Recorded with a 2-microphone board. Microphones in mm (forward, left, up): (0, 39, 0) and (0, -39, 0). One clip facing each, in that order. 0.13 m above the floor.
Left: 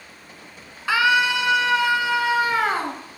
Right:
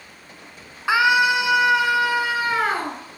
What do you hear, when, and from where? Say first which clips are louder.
0.9 s a scream: right 2 dB; 20° right (ahead or behind), 1.1 m; by 3.0 s centre (ahead or behind), 1.6 m